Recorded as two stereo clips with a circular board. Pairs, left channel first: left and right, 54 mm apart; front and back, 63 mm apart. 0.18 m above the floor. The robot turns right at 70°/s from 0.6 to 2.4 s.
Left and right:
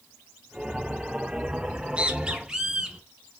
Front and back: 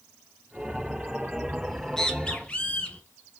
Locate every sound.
1.6 s a bird: 90° right, 1.0 m; by 3.0 s 35° right, 1.0 m